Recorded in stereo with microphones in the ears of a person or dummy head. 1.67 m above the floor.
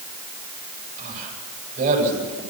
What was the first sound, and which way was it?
A man speaking, 35° right (ahead or behind).